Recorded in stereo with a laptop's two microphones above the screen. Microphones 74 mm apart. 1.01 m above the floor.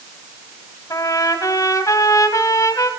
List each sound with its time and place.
0.9 s a trumpet: 50° left (ahead or behind), 2 m